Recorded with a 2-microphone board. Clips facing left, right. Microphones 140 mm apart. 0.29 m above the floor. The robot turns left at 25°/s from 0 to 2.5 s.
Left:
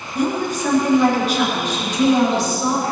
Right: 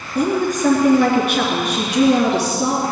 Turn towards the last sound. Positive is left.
turn(degrees=-100)